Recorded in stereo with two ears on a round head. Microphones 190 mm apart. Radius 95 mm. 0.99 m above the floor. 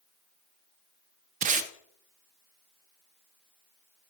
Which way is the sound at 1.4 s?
35° right (ahead or behind).